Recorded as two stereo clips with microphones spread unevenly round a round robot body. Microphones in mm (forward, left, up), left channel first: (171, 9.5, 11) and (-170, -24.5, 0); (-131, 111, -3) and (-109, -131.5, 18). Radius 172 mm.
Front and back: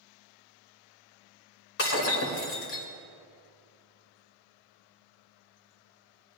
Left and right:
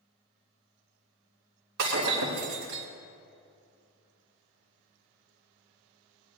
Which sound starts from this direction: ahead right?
Breaking glass, at 1.8 s.